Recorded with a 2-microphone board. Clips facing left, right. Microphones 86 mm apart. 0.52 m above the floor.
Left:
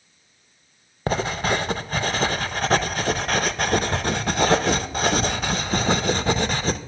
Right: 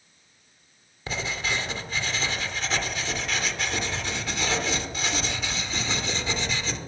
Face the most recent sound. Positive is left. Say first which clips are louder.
# left 8 dB
turn(degrees=50)  # may be behind; listen again after turning